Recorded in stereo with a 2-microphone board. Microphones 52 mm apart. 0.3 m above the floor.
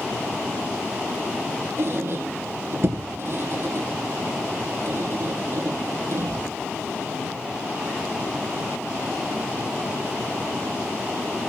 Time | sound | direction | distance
1.8 | a squeak | 55° right (ahead or behind) | 1.6 m